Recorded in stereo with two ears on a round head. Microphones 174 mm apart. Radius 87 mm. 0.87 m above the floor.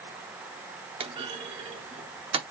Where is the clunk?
25° right (ahead or behind), 0.7 m.